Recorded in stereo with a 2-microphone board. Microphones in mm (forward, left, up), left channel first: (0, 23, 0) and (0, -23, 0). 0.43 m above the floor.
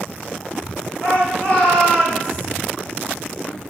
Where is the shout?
35° left (ahead or behind), 3 m.